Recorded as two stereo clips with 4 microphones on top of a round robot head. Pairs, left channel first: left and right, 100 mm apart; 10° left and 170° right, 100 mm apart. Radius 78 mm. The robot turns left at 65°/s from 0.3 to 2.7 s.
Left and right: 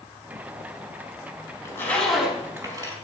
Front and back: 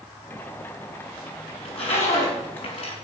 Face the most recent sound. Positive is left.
turn(degrees=-40)